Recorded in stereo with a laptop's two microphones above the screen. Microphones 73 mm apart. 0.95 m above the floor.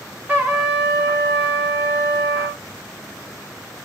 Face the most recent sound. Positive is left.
turn(degrees=-20)  # may be behind; listen again after turning